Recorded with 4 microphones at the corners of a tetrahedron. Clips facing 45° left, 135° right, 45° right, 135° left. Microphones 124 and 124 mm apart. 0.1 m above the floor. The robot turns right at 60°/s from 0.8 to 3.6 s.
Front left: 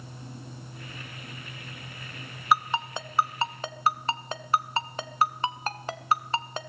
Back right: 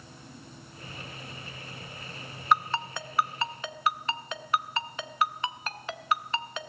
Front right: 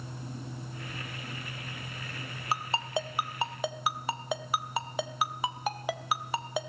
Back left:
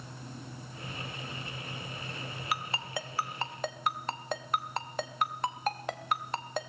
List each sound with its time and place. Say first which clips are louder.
2.5 s a ringtone: front left 1 dB, front right 5 dB; 35° right, 0.5 m; by 6.7 s 30° left, 0.5 m